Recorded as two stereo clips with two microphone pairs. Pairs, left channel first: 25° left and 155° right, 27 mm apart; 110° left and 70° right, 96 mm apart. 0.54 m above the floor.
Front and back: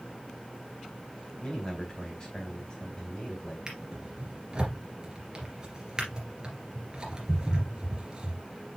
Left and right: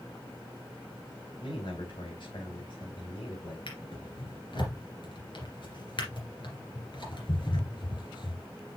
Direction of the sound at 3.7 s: 145° left.